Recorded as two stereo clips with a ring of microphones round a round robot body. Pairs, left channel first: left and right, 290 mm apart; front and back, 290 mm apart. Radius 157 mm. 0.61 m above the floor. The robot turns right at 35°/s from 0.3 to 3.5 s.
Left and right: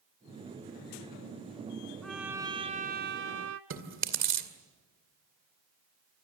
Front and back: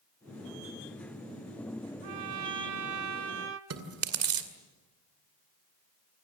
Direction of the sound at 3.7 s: 140° right.